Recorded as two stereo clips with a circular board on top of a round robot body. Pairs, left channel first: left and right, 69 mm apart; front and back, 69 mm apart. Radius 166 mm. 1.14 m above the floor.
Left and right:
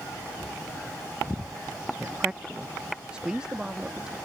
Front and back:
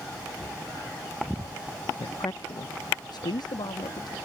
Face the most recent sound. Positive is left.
turn(degrees=-10)